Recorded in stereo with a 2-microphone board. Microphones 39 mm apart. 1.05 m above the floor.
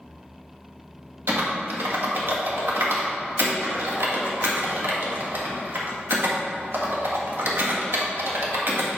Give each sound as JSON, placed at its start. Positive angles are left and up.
{"t": 1.3, "sound": "typing on a keyboard", "side_deg": -70, "distance_m": 1.7}